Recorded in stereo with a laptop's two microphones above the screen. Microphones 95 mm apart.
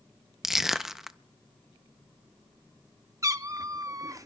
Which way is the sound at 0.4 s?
5° right (ahead or behind).